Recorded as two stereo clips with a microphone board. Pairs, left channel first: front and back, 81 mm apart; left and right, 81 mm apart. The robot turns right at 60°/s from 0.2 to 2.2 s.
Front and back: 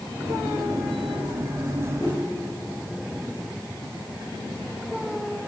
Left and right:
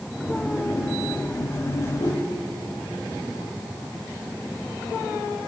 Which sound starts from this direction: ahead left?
A whoosh, at 2.0 s.